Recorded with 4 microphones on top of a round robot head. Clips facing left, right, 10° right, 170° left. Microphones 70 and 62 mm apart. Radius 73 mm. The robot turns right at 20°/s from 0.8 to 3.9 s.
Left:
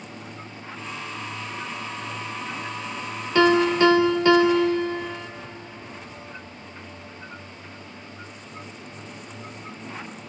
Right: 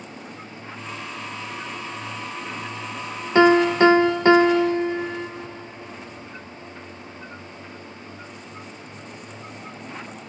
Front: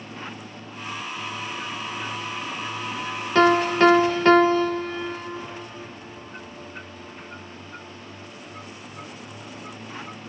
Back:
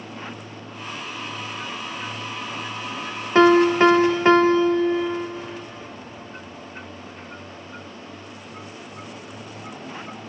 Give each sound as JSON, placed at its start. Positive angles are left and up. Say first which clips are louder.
{"t": 3.4, "sound": "a piano", "louder": "right 3 dB, back 3 dB", "azimuth_deg": -130, "distance_m": 0.5}